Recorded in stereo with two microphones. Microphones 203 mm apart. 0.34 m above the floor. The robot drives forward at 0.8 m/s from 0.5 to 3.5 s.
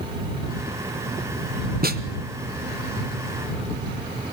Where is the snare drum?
50° right (ahead or behind), 1.6 m.